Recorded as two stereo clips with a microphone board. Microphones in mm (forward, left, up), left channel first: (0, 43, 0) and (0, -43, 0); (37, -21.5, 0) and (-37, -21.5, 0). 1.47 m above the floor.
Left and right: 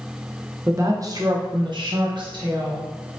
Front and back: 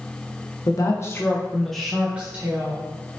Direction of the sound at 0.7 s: 30° right.